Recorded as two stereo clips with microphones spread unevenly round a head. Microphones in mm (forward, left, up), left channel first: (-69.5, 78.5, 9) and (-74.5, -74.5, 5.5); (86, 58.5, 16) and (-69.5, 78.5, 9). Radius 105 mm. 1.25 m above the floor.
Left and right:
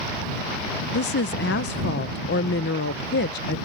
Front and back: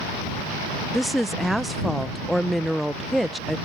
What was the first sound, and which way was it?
A woman speaking, 85° left.